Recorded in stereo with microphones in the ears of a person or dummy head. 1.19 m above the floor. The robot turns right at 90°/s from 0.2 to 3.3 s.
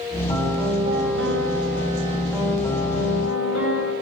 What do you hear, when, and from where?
0.3 s a piano: 160° left, 7 m; by 3.9 s 75° left, 7 m